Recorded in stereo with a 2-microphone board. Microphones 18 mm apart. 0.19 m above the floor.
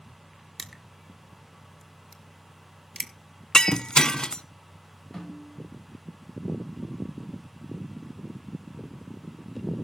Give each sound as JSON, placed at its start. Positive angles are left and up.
{"t": 0.6, "sound": "crushing", "side_deg": 5, "distance_m": 0.8}
{"t": 3.5, "sound": "breaking glass", "side_deg": 40, "distance_m": 0.6}
{"t": 5.1, "sound": "a snare drum", "side_deg": 15, "distance_m": 6.5}